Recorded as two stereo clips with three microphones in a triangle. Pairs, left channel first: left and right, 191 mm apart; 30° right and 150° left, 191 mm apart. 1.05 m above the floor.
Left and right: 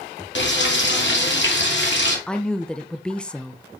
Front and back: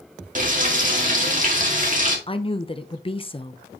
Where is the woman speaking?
5° left, 0.7 m.